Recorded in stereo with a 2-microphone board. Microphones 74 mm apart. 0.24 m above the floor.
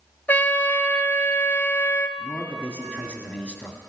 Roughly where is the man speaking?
Centre.